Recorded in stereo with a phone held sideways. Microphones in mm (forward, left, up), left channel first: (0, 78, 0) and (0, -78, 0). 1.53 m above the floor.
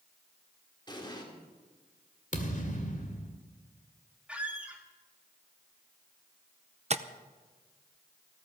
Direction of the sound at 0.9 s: 30° left (ahead or behind).